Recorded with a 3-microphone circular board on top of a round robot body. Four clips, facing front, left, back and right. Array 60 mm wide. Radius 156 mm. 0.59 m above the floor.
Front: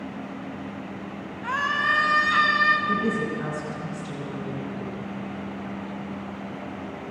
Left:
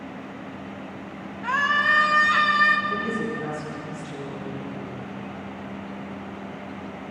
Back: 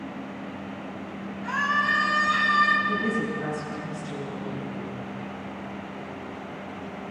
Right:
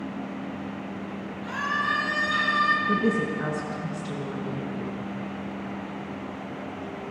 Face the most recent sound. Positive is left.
turn(degrees=-70)